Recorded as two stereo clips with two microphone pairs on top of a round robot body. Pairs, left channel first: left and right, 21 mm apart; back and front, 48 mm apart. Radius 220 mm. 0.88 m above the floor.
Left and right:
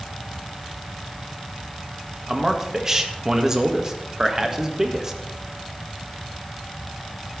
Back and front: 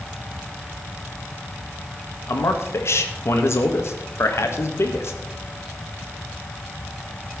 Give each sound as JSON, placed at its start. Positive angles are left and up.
{"t": 2.3, "sound": "a man speaking", "azimuth_deg": -155, "distance_m": 2.0}